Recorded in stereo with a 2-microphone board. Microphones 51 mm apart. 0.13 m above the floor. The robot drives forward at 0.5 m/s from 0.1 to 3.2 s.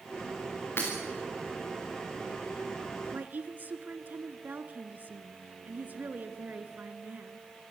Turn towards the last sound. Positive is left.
turn(degrees=-40)  # may be behind; listen again after turning